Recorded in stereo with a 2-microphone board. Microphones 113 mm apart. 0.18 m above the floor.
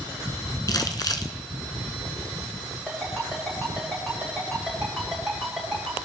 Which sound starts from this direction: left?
Crumpling, at 0.7 s.